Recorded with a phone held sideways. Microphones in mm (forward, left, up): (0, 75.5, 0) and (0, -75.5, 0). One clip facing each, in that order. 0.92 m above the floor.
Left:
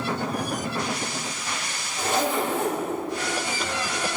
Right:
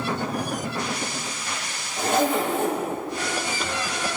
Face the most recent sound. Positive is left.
turn(degrees=-60)  # may be behind; listen again after turning